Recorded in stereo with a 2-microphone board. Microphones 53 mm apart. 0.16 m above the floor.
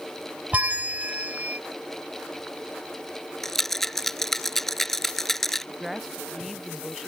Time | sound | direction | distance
0.5 | a bell | 30° right (ahead or behind) | ?
3.4 | a rattle | 5° left (ahead or behind) | ?
5.7 | a woman speaking | centre (ahead or behind) | ?